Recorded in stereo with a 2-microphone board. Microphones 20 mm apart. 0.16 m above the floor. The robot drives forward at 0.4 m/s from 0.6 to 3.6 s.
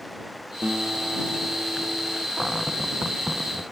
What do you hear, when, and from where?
0.6 s a guitar: 75° right (ahead or behind); by 2.3 s 70° right (ahead or behind)
2.4 s a cupboard door: 10° right (ahead or behind)